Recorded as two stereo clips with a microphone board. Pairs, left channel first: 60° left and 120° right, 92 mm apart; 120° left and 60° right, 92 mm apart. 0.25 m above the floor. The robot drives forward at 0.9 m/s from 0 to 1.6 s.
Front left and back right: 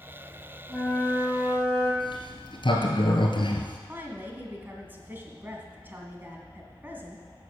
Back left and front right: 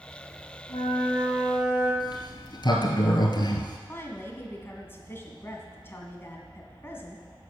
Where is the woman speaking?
Straight behind, 1.9 m.